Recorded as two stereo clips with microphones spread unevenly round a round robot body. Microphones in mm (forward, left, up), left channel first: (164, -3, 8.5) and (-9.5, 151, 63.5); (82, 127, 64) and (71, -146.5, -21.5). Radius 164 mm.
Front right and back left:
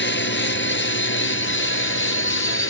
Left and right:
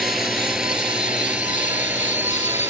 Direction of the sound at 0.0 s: 5° right.